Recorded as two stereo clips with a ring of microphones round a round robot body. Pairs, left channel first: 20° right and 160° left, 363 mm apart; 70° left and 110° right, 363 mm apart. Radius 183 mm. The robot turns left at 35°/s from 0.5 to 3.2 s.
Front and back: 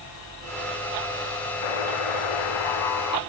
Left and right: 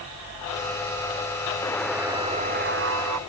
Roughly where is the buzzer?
Ahead.